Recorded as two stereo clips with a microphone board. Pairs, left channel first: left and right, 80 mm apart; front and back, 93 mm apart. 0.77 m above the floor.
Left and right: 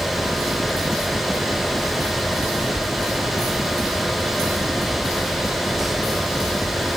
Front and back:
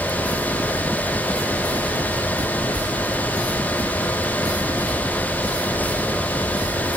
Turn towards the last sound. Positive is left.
No sound to turn to.